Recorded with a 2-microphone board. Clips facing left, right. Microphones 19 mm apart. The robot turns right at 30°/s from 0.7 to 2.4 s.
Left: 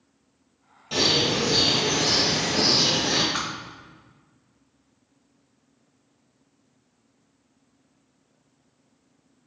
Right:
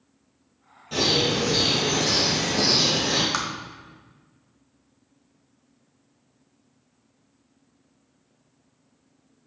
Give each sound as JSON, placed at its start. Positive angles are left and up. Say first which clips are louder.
{"t": 0.9, "sound": "a bird", "louder": "even", "azimuth_deg": 145, "distance_m": 3.0}
{"t": 3.3, "sound": "tapping", "louder": "right 1 dB", "side_deg": -75, "distance_m": 1.6}